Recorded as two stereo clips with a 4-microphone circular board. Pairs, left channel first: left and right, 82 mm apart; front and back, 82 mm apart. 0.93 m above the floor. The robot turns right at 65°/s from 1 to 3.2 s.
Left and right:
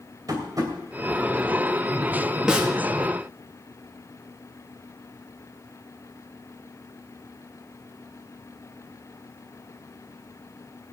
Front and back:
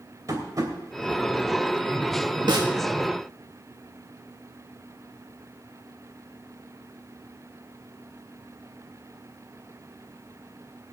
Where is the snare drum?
170° right, 1.5 m; by 2.7 s 155° right, 1.5 m.